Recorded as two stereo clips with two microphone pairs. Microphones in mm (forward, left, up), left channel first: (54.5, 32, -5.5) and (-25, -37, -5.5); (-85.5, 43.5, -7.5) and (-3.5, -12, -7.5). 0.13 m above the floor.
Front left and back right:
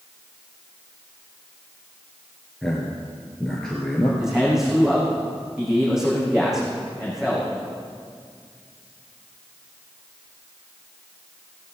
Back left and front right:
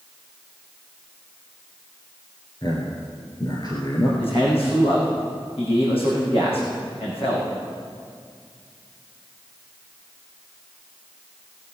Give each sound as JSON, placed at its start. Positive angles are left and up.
{"t": 2.6, "sound": "a man speaking", "azimuth_deg": 125, "distance_m": 2.0}
{"t": 4.2, "sound": "a man speaking", "azimuth_deg": 135, "distance_m": 5.0}